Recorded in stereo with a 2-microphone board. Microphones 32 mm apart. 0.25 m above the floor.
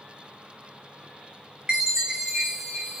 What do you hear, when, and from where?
1.7 s a chime: 20° right (ahead or behind), 0.7 m